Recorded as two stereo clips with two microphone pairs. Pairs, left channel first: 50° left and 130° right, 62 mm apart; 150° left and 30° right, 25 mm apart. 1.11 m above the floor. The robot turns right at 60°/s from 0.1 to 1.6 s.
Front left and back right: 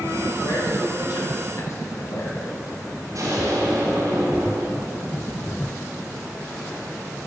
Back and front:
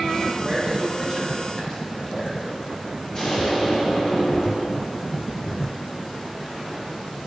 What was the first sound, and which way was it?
A man speaking, 15° left.